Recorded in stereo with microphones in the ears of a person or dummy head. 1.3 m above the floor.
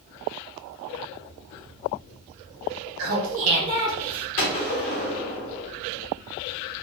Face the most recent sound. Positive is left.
turn(degrees=65)  # may be behind; listen again after turning